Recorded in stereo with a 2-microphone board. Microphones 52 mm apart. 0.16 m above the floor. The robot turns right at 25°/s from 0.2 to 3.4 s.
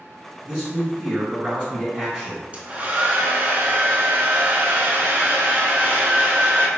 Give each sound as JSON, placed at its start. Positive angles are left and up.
{"t": 0.4, "sound": "a man speaking", "side_deg": -20, "distance_m": 1.6}
{"t": 2.5, "sound": "a hair dryer", "side_deg": -30, "distance_m": 0.6}